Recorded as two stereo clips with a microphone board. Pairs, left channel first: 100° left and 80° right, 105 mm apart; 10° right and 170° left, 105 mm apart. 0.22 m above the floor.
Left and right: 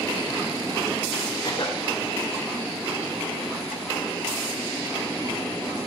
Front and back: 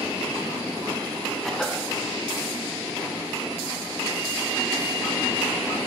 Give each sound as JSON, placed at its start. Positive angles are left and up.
{"t": 1.4, "sound": "a cough", "azimuth_deg": 75, "distance_m": 3.5}